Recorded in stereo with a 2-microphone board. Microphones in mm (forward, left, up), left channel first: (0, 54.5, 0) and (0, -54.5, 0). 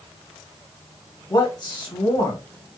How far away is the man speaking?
About 1.3 m.